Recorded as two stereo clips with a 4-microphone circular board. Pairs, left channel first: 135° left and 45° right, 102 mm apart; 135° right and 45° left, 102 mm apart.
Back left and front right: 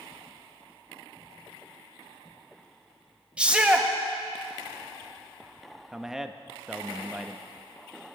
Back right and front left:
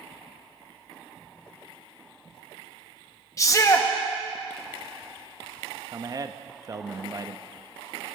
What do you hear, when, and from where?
3.4 s a shout: 115° right, 1.1 m
5.9 s a man speaking: 40° left, 0.6 m